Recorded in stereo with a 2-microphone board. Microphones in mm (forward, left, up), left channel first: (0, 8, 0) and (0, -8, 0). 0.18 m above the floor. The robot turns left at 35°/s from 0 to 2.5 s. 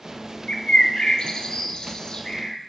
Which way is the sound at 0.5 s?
65° left (ahead or behind).